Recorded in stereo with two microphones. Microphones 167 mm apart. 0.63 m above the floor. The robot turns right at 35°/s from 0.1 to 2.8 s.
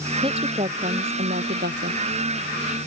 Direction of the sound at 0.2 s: 150° right.